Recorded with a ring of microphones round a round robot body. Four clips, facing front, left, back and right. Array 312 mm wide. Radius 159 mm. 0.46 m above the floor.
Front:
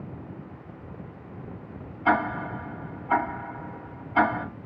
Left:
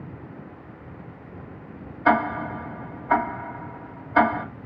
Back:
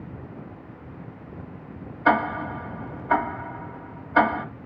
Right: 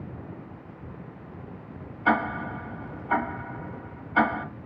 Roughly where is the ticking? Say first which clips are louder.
Left 4 dB, back 3 dB; behind left.